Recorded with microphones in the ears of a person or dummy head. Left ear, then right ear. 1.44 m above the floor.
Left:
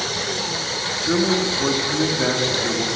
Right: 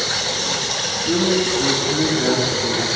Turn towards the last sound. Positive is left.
turn(degrees=15)  # may be behind; listen again after turning